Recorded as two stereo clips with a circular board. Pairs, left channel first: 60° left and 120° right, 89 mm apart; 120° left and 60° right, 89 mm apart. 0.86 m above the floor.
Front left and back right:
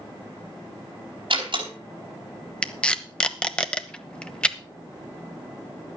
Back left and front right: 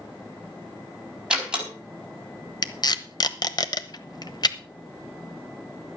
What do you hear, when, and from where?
1.3 s a door slam: 140° right, 4.5 m
2.6 s tape being pulled: 135° left, 0.9 m